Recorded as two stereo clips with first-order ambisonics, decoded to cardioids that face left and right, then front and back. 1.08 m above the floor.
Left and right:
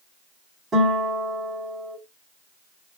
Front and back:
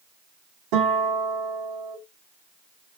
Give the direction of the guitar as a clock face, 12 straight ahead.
5 o'clock.